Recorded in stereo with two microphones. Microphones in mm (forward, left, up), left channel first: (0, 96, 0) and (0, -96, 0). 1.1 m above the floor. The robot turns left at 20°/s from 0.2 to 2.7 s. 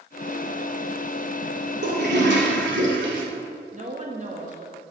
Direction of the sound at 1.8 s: 70° right (ahead or behind).